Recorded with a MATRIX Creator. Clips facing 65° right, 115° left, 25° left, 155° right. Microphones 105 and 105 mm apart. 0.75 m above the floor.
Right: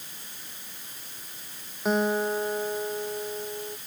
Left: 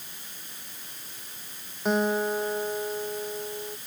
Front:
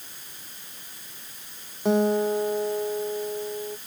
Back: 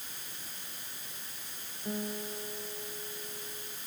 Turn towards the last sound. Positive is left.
turn(degrees=20)